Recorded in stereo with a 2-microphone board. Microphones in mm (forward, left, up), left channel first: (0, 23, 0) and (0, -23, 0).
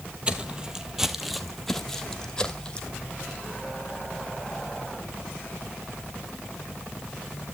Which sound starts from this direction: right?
Footsteps, at 0.3 s.